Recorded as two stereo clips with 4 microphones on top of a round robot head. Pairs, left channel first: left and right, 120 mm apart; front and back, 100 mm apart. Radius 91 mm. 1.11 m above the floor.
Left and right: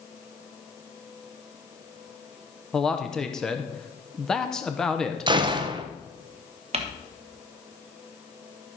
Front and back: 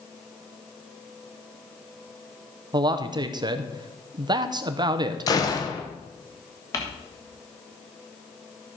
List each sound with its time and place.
2.7 s a man speaking: 175° left, 0.8 m
5.3 s a gunshot: 45° right, 0.9 m
6.7 s crumpling: 60° right, 1.3 m